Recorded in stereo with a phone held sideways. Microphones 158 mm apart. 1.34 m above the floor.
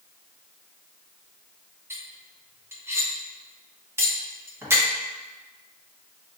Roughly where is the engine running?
I don't hear an engine running.